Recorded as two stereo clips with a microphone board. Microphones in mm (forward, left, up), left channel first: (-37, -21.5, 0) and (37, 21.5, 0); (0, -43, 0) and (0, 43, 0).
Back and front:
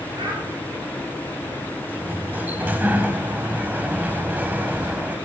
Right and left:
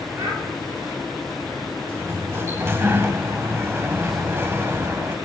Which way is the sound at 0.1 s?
40° left.